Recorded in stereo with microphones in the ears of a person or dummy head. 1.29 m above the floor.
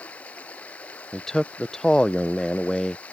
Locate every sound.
0.0 s running water: 10° left (ahead or behind)
1.1 s a man speaking: centre (ahead or behind)